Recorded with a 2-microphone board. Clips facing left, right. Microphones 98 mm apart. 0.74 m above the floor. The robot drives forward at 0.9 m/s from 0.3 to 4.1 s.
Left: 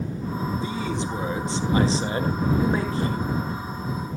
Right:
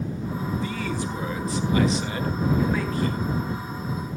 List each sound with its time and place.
0.6 s a man speaking: 20° left (ahead or behind), 1.8 m; by 3.2 s 25° left (ahead or behind), 1.5 m